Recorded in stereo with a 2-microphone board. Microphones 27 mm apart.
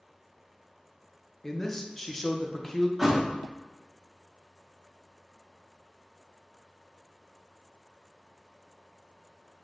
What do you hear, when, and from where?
1.4 s a man speaking: 10° left (ahead or behind), 0.6 m
3.0 s a thud: 5° right (ahead or behind), 0.7 m